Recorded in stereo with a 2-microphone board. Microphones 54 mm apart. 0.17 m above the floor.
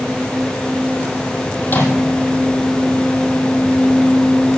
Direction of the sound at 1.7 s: 40° left (ahead or behind).